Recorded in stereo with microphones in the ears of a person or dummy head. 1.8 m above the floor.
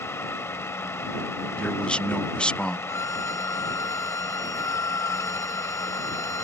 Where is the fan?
15° left (ahead or behind).